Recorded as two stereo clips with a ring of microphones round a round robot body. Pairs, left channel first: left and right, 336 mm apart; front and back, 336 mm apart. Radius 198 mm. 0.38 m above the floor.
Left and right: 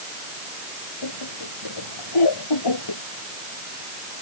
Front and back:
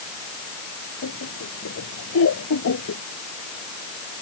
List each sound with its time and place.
1.0 s laughter: 55° left